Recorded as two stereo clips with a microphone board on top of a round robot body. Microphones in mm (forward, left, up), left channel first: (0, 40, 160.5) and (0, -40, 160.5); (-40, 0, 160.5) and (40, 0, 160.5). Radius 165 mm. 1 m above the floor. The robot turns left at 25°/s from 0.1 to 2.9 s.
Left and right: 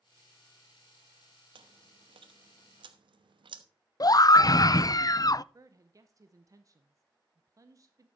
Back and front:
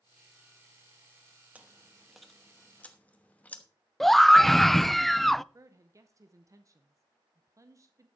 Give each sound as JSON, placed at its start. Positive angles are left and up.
{"t": 1.6, "sound": "chewing", "azimuth_deg": -75, "distance_m": 1.1}
{"t": 4.0, "sound": "a scream", "azimuth_deg": 95, "distance_m": 0.6}
{"t": 5.5, "sound": "a woman speaking", "azimuth_deg": -45, "distance_m": 1.0}